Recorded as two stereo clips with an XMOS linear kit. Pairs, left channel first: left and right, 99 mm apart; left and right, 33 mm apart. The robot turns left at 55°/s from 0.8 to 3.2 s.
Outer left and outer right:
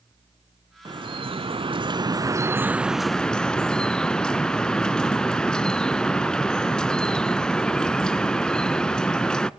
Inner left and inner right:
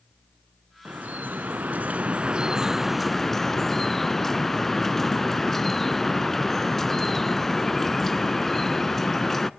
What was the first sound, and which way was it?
Dripping, 60° right.